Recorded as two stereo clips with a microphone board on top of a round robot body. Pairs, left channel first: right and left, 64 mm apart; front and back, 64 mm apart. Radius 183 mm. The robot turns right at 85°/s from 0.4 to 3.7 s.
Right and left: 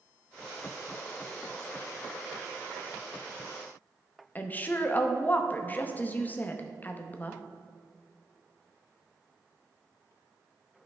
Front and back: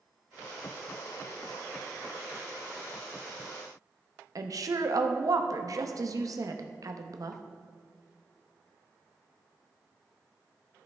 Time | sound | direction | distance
4.3 | a woman speaking | 150° right | 1.0 m